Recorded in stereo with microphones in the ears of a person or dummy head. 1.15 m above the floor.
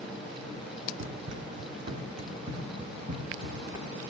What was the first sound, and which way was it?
Running footsteps, 45° right (ahead or behind).